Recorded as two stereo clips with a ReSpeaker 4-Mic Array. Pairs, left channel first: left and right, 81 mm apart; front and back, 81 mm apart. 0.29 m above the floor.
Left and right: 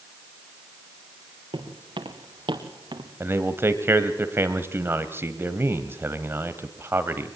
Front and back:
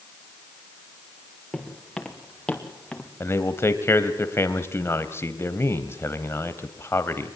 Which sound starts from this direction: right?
Footsteps, at 1.5 s.